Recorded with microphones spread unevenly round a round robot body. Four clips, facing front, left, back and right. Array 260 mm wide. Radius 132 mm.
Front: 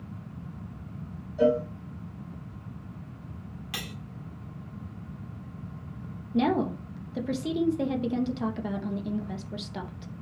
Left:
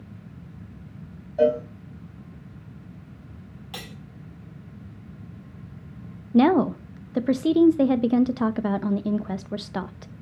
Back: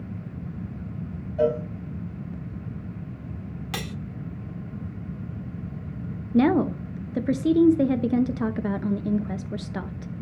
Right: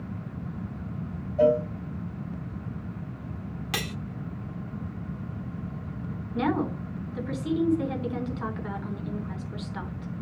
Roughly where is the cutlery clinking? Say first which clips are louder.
Right 6 dB, back 6 dB; right.